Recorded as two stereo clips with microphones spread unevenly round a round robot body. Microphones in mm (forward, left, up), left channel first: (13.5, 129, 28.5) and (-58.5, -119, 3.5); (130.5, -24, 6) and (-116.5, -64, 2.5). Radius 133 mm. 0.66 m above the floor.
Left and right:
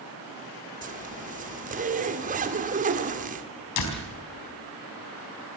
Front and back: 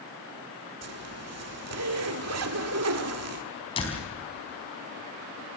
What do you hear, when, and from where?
0.8 s a zipper: 160° right, 1.9 m
3.8 s a door slam: 80° left, 4 m